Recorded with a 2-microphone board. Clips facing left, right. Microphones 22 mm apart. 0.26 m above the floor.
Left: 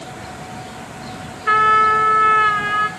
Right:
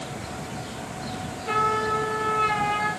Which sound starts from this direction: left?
A trumpet, at 1.5 s.